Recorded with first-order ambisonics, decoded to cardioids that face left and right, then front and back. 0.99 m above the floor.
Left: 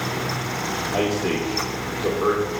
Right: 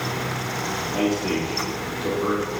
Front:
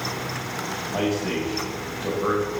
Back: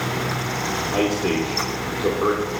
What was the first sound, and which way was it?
A man speaking, 150° left.